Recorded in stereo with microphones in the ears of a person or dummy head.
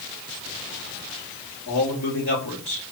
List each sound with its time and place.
1.7 s a man speaking: 55° left (ahead or behind), 2 m